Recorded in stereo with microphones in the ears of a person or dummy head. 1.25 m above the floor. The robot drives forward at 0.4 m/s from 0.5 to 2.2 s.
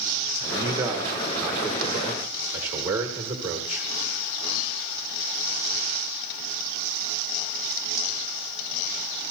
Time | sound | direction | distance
0.4 | a man speaking | 20° right (ahead or behind) | 0.8 m